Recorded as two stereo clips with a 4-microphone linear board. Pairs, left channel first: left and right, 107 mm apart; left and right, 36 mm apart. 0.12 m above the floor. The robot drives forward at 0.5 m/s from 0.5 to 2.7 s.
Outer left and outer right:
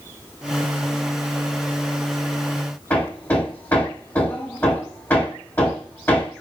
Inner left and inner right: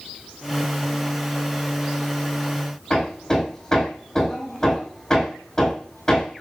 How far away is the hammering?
About 4.5 m.